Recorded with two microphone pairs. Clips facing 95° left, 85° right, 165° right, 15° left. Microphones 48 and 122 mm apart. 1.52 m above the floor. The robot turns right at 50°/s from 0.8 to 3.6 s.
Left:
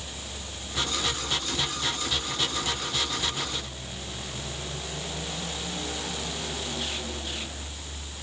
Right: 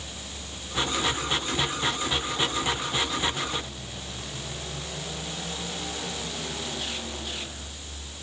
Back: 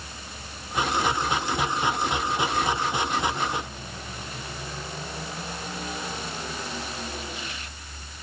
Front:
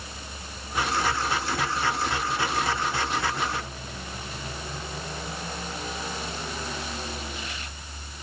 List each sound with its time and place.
Only background noise.